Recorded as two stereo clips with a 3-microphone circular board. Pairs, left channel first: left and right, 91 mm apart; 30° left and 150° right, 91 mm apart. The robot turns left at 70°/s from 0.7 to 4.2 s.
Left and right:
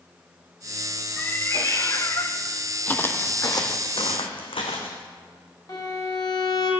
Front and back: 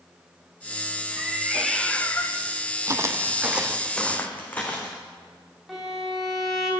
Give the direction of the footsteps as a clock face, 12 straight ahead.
7 o'clock.